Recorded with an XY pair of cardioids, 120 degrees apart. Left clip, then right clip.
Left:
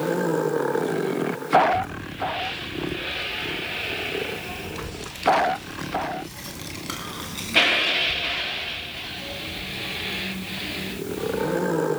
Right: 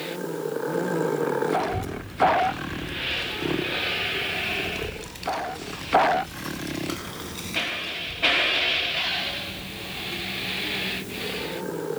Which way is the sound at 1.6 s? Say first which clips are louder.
Left 7 dB; 45° right.